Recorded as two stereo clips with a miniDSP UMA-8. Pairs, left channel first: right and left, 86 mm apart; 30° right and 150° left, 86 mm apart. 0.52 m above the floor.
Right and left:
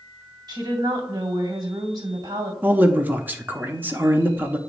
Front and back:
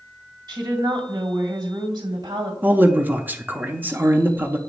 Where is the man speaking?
115° left, 0.7 m.